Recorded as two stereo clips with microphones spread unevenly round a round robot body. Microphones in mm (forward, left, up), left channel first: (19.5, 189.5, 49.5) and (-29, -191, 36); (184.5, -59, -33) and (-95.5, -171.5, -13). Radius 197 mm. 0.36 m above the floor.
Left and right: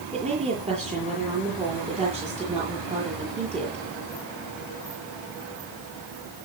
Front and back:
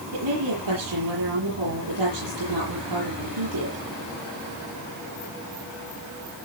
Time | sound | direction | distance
0.1 | a woman speaking | 170° right | 9 m